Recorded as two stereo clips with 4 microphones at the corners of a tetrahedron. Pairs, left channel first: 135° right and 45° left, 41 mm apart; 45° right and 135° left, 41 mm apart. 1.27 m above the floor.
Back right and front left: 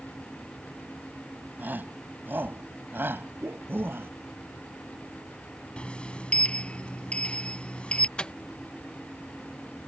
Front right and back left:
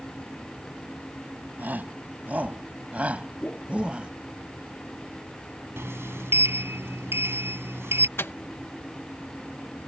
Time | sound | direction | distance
1.6 | a shout | 90° left | ?
3.4 | a whoosh | 15° left | ?
5.8 | a sliding door | 155° left | ?
8.2 | a microwave | 70° right | ?